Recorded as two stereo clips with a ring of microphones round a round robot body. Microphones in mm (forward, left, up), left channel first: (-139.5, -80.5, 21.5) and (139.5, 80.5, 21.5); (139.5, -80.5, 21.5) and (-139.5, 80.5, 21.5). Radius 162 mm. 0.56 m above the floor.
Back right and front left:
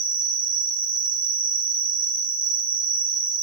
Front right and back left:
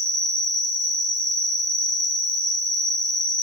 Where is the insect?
35° left, 7.5 m.